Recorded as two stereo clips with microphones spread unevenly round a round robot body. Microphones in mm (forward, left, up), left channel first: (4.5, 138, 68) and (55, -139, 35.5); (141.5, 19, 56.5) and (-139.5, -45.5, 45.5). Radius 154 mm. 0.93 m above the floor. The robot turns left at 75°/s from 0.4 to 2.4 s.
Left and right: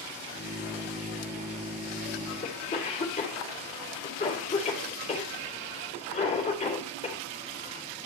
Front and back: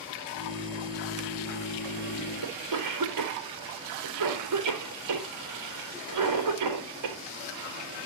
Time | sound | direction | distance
2.4 | a cough | 170° left | 3.5 m